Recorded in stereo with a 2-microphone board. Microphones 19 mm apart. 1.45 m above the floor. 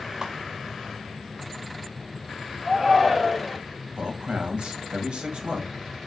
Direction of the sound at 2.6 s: 5° left (ahead or behind).